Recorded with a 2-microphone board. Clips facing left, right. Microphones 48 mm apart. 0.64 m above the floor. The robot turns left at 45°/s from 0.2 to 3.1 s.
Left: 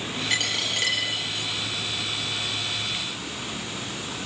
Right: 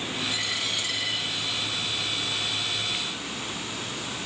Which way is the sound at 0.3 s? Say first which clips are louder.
Left 3 dB; 110° left.